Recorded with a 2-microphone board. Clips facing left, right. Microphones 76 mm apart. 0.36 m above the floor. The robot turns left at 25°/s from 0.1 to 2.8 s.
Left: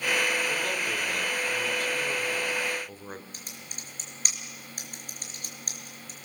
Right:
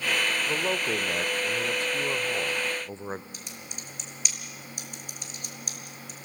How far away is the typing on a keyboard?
About 4.5 m.